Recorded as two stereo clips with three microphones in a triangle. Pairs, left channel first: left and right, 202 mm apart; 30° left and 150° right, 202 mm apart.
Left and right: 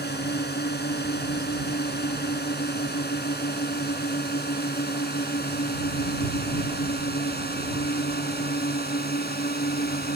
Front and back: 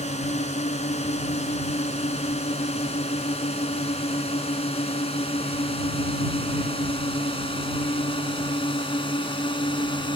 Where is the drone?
80° left; by 10.2 s 90° left.